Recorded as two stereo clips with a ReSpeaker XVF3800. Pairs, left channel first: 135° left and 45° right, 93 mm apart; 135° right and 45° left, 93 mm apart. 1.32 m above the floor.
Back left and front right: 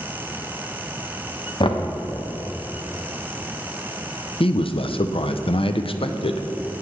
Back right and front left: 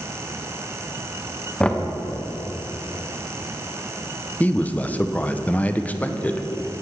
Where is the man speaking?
150° left, 0.5 m.